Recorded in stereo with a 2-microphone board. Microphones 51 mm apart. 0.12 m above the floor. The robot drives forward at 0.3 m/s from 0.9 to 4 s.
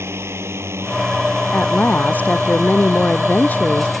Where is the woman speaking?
35° left (ahead or behind); by 3.9 s 40° left (ahead or behind).